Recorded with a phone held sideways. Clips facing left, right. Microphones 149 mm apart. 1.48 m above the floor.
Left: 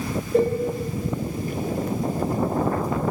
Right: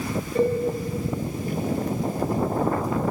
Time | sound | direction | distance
0.3 | a cowbell | 60° left (ahead or behind) | 1.4 m